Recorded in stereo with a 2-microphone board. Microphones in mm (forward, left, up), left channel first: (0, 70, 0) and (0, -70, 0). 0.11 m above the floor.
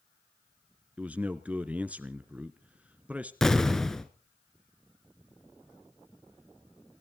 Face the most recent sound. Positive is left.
turn(degrees=0)  # may be behind; listen again after turning